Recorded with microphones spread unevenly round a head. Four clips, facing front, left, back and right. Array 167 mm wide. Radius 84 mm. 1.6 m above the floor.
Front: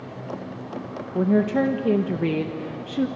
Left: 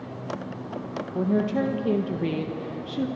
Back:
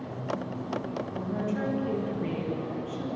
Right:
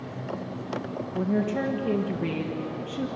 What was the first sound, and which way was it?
A woman speaking, 15° left.